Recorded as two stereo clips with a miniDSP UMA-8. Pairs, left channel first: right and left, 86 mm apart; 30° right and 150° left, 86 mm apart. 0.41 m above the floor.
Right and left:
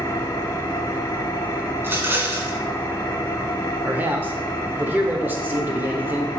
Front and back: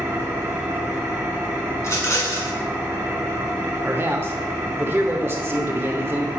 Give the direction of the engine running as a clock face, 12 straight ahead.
5 o'clock.